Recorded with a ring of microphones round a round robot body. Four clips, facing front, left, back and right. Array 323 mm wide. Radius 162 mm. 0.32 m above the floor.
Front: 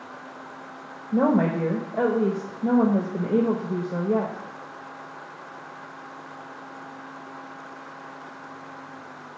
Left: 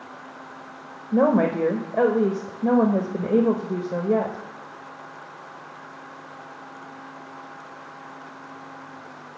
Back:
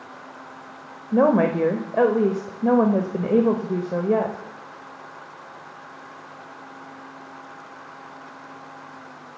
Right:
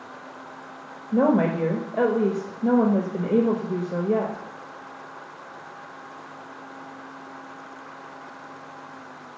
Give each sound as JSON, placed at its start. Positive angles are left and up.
{"t": 1.1, "sound": "a woman speaking", "azimuth_deg": 160, "distance_m": 1.0}